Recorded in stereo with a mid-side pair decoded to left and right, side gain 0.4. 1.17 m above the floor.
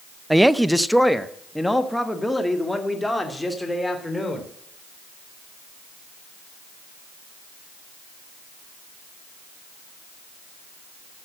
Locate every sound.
0.3 s a woman speaking: 10° right, 0.5 m; by 4.5 s 10° left, 3.5 m